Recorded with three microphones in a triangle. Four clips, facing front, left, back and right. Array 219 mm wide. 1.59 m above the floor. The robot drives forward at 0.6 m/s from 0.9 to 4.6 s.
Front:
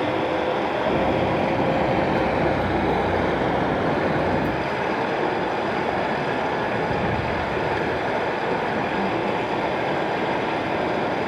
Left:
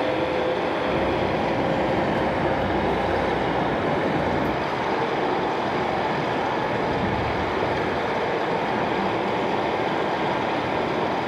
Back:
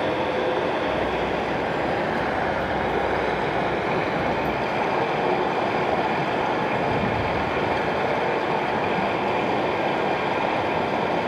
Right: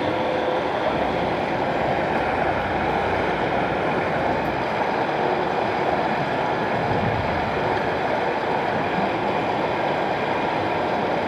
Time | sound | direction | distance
0.0 | running water | 65° right | 3 m